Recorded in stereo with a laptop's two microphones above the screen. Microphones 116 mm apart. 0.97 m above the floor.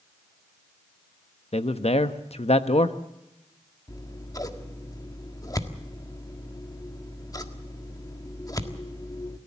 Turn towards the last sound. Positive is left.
turn(degrees=30)  # may be behind; listen again after turning